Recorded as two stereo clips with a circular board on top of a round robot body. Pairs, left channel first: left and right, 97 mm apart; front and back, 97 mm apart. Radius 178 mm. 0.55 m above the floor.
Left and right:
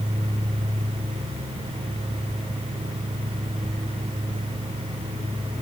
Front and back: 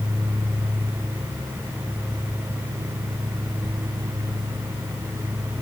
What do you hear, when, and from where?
Only background noise.